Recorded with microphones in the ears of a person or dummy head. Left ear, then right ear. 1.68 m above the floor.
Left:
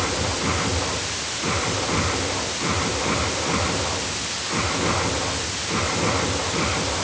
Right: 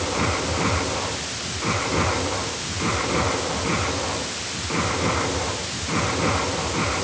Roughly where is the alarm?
No alarm in this recording.